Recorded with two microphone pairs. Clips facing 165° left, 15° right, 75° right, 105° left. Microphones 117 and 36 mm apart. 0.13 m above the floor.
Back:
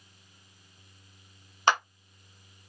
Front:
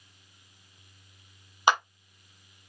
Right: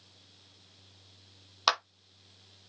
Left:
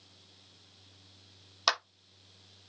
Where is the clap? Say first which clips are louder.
Front 1 dB, right 2 dB; 45° right, 1.3 m.